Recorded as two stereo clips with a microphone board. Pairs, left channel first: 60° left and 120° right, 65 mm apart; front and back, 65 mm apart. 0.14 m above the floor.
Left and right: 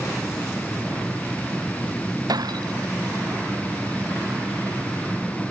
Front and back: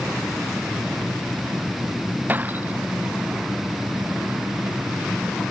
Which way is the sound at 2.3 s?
120° right.